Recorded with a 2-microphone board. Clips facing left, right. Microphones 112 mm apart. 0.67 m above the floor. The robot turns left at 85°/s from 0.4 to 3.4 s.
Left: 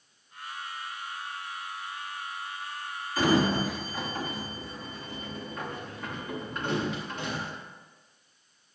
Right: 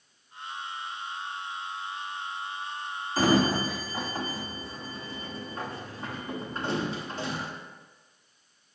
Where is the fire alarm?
No fire alarm in this recording.